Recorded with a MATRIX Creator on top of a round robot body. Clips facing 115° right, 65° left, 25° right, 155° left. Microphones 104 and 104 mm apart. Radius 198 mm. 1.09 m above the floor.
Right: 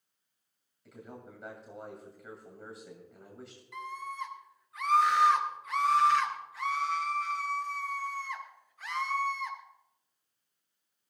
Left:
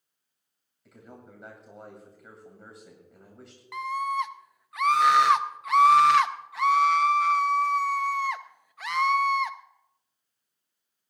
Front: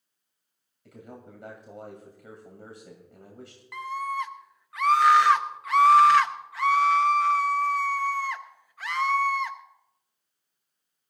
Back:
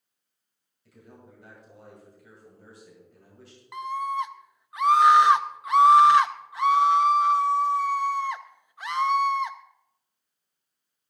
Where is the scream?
85° left, 0.6 m.